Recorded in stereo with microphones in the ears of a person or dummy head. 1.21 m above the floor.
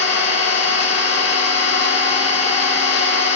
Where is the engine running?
60° left (ahead or behind), 1.7 m.